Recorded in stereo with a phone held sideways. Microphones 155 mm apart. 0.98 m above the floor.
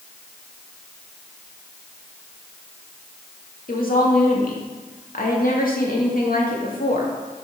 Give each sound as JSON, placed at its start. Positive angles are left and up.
{"t": 3.7, "sound": "a woman speaking", "side_deg": 65, "distance_m": 2.0}